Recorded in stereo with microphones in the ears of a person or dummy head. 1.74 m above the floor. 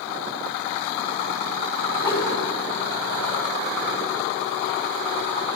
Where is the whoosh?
25° left (ahead or behind), 2.5 m.